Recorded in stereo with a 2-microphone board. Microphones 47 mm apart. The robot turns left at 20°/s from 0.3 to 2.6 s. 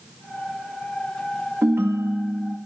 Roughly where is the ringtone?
Right.